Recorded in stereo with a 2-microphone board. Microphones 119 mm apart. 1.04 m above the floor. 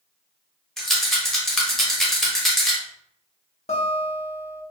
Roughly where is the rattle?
Centre.